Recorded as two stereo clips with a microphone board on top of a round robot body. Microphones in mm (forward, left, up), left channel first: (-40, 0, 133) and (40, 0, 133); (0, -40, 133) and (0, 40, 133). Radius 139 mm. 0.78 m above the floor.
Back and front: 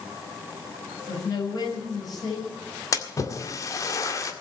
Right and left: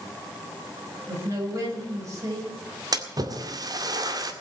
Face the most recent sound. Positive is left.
turn(degrees=130)